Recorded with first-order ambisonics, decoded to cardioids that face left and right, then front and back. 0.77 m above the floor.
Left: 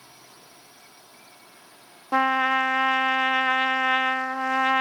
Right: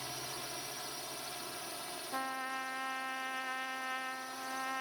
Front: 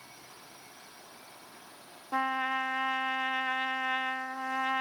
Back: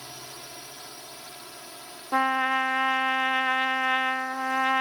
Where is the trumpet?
110° left.